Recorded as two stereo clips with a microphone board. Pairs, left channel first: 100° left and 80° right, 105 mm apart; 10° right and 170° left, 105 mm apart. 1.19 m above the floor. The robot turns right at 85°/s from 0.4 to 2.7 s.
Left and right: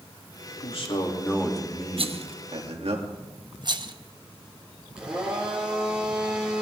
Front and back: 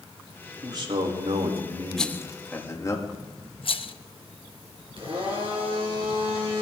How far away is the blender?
About 5 m.